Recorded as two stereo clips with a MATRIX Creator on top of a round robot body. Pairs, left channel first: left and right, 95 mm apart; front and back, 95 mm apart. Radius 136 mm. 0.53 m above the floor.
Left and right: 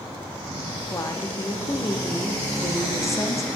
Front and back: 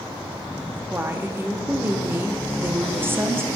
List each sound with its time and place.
0.9 s a woman speaking: 125° left, 0.8 m